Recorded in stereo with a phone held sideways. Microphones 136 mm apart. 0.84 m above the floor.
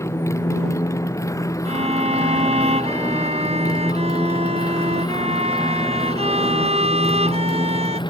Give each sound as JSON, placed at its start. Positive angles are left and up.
{"t": 0.0, "sound": "a motorcycle", "side_deg": 20}
{"t": 1.6, "sound": "a violin", "side_deg": -45}